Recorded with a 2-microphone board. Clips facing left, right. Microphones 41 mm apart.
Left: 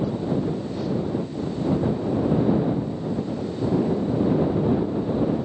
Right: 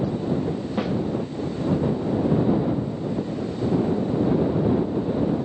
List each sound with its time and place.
0.8 s a snare drum: 55° right (ahead or behind)